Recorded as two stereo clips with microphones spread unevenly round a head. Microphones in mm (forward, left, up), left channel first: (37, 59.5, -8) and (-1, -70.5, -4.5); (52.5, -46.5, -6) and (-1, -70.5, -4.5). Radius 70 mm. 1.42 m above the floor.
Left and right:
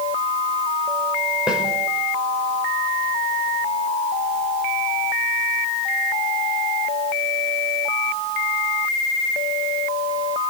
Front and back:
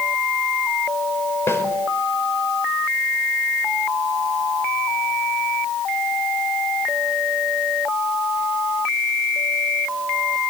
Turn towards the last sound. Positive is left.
turn(degrees=-25)